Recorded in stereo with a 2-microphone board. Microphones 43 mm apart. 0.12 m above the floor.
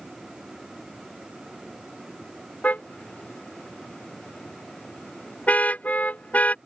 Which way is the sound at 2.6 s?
35° left (ahead or behind).